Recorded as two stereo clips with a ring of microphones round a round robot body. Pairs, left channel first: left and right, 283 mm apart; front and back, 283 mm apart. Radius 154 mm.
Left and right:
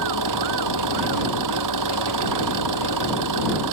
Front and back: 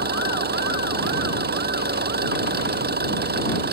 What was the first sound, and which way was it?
An engine running, 125° right.